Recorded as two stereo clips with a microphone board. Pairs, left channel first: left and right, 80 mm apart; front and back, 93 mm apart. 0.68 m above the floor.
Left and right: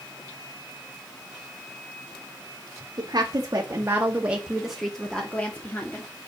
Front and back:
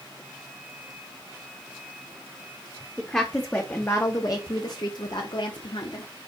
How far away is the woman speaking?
About 1.1 m.